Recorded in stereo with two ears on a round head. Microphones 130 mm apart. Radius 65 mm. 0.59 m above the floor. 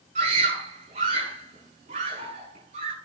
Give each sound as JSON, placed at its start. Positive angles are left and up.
{"t": 0.1, "sound": "a scream", "side_deg": -50, "distance_m": 7.5}